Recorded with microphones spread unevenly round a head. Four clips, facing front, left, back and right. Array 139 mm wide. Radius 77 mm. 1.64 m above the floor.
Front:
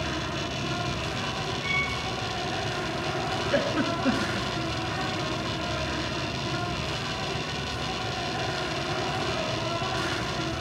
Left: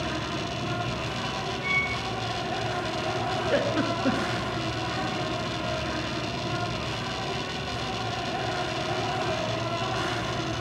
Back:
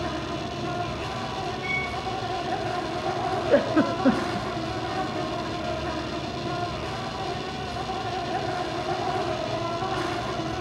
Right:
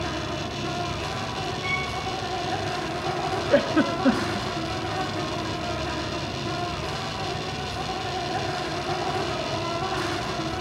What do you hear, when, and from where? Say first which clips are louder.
0.0 s an insect: right 1 dB, back 2 dB; straight behind, 5 m
1.6 s a violin: right 1 dB, even; 175° left, 6 m
3.5 s a giggle: right 6 dB, back 6 dB; 160° right, 0.8 m